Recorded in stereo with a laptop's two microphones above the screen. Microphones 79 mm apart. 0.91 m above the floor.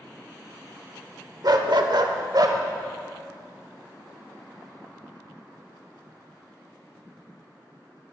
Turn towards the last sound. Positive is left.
turn(degrees=-55)  # may be behind; listen again after turning